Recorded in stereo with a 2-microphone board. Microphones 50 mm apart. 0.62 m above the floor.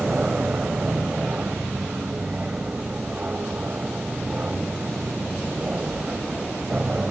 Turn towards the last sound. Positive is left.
turn(degrees=-30)  # may be behind; listen again after turning